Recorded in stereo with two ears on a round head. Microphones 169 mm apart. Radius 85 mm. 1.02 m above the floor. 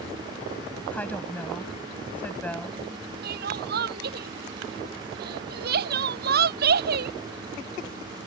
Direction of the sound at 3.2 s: 55° right (ahead or behind).